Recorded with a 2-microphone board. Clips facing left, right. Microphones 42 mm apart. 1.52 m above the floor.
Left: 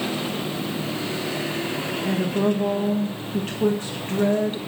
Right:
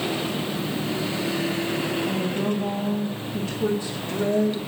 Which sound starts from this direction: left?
A woman speaking, at 2.0 s.